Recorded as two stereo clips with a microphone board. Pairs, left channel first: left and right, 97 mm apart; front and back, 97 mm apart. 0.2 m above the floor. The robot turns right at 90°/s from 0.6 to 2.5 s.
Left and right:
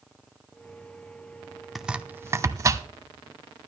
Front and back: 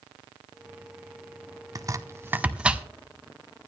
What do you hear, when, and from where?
1.8 s chopping: 175° right, 0.6 m; by 2.9 s 110° right, 0.6 m